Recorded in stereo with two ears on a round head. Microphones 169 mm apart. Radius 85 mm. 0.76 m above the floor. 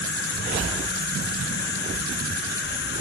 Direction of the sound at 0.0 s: 60° left (ahead or behind).